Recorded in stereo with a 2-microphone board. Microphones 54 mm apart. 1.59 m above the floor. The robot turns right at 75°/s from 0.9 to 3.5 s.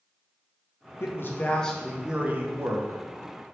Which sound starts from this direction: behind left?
A man speaking, at 1.0 s.